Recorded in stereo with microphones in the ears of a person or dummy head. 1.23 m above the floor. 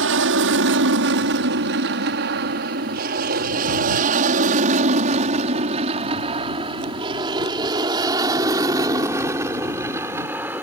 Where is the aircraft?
65° right (ahead or behind); by 10.6 s 10° right (ahead or behind).